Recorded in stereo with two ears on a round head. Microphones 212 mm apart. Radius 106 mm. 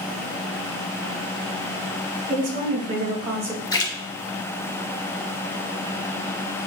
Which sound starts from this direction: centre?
A splash, at 3.7 s.